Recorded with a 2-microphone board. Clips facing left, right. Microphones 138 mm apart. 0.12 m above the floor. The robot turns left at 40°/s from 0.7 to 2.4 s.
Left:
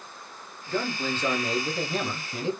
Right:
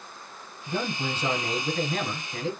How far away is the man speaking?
About 2.0 m.